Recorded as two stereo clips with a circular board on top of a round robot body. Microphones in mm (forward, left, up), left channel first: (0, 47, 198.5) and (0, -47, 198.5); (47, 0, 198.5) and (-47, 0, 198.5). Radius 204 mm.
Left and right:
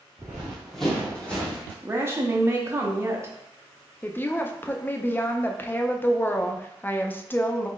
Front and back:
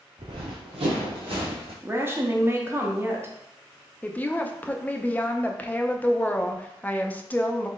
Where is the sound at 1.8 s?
135° right, 0.9 m.